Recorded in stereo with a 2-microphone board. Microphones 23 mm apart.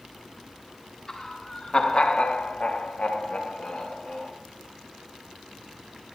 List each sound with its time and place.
1.1 s laughter: 25° left (ahead or behind), 3 m; by 4.3 s 50° left (ahead or behind), 3 m